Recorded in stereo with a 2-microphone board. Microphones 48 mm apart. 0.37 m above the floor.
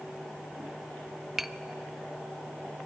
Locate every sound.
1.4 s tapping: centre (ahead or behind), 0.5 m